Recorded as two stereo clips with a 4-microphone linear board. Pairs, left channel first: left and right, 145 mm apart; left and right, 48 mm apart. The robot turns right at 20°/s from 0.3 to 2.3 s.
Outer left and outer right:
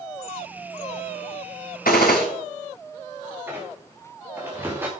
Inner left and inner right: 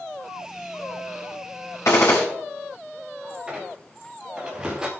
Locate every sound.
1.9 s a gunshot: 75° left (ahead or behind), 4 m; by 2.2 s 80° left, 4 m
3.5 s a squeak: 15° right (ahead or behind), 3 m